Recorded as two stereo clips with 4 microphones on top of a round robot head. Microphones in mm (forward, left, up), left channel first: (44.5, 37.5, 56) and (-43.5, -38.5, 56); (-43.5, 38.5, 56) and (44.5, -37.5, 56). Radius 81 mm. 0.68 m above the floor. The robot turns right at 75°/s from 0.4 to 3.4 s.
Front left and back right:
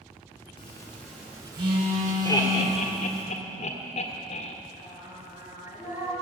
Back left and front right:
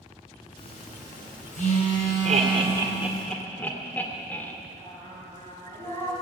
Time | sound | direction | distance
0.6 | a phone buzzing | 85° left | 4 m
2.2 | laughter | 25° right | 2 m
4.8 | singing | 75° right | 6.5 m